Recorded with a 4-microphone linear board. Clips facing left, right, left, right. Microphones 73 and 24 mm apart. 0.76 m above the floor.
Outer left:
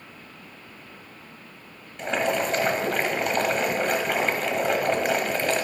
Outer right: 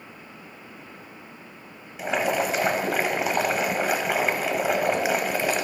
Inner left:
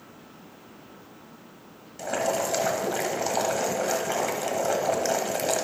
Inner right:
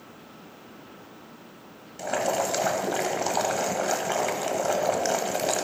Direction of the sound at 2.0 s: 5° right (ahead or behind).